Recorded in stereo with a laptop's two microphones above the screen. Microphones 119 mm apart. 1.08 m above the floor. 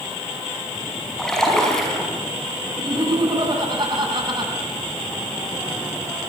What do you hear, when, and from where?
1.2 s a splash: 5° left (ahead or behind), 5 m
2.8 s laughter: 40° right (ahead or behind), 8.5 m